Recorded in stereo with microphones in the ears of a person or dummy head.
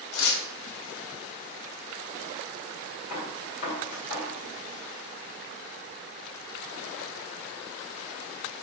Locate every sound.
0.1 s tearing paper: 75° left (ahead or behind), 2.5 m
3.1 s a gunshot: 50° left (ahead or behind), 2 m